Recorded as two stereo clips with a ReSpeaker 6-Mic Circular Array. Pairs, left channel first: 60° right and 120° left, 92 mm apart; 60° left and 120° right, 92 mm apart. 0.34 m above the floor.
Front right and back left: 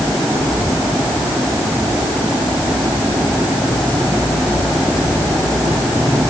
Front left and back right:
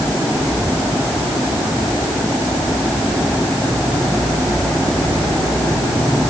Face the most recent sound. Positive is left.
No sound to turn to.